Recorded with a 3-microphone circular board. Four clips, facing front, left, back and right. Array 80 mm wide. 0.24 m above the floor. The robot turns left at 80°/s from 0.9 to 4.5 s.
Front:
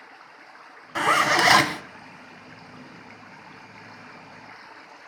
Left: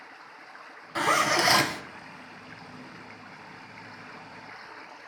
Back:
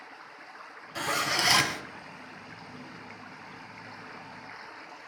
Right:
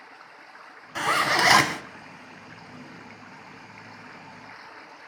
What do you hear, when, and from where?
0.9 s a zipper: 10° left, 0.5 m; by 1.8 s 60° right, 0.5 m